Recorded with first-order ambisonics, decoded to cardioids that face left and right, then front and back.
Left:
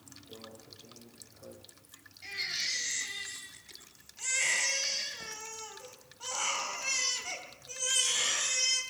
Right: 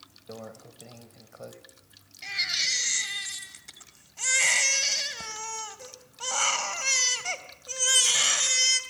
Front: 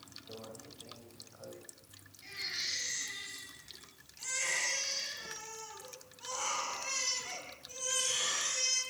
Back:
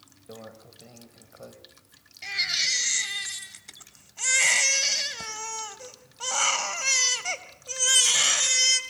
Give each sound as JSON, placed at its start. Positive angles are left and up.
{"t": 0.3, "sound": "a microwave", "azimuth_deg": -115, "distance_m": 2.5}
{"t": 2.2, "sound": "a baby crying", "azimuth_deg": -145, "distance_m": 2.5}